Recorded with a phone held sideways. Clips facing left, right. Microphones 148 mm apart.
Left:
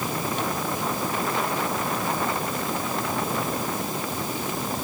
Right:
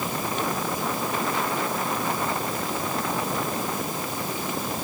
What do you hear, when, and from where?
Only background noise.